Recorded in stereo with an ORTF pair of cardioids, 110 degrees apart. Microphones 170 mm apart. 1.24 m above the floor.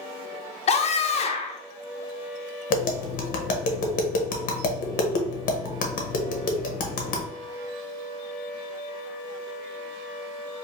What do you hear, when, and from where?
0.7 s a scream: 40° left, 0.7 m
2.7 s tapping: 60° left, 0.8 m